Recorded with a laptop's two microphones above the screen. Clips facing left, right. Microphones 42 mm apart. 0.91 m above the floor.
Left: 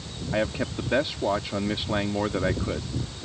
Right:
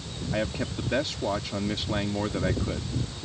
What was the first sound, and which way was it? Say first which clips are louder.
A man speaking: left 3 dB; 15° left (ahead or behind).